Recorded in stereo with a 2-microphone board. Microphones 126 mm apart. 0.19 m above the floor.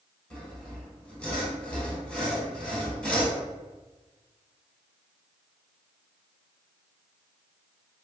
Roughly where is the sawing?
Centre.